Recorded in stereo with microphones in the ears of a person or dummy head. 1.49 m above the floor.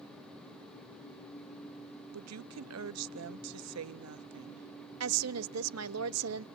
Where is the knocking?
I don't hear knocking.